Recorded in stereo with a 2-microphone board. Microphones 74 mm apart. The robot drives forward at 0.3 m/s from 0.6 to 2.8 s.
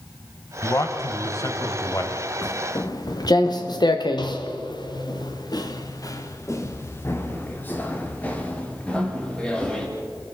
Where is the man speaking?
45° left (ahead or behind), 2 m.